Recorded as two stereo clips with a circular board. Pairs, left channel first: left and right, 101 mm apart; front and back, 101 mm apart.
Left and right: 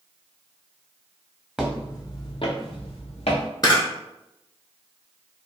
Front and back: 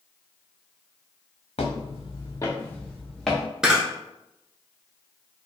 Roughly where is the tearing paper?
No tearing paper in this recording.